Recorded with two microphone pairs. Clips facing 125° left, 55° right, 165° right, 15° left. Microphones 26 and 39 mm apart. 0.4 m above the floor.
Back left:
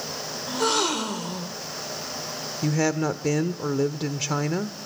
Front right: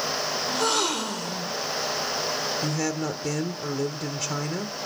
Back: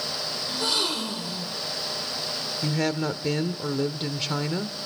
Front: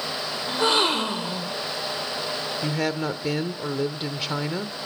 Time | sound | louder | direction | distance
0.5 | a gasp | back left 2 dB, front 7 dB | 40° left | 0.8 m
2.6 | a woman speaking | back left 3 dB, back 1 dB | 85° left | 0.8 m